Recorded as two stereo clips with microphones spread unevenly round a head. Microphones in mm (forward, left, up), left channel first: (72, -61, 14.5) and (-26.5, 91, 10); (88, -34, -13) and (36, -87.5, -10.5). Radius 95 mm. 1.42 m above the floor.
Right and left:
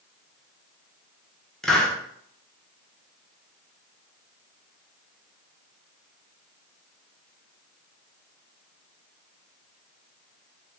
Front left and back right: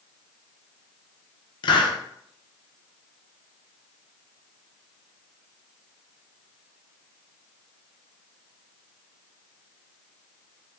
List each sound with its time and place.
1.6 s a hiss: 30° left, 0.7 m